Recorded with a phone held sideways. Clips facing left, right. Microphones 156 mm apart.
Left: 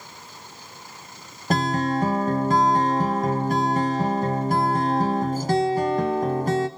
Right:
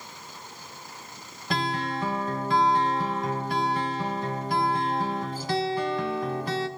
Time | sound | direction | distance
1.5 | a guitar | 45° left (ahead or behind) | 0.9 m